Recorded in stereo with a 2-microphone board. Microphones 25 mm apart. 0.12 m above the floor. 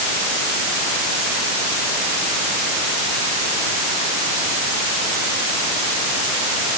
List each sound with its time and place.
Only background noise.